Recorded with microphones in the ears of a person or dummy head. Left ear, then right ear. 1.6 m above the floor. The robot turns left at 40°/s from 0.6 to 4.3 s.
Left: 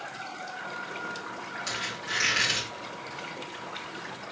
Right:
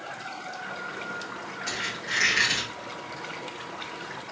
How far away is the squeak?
About 1.3 m.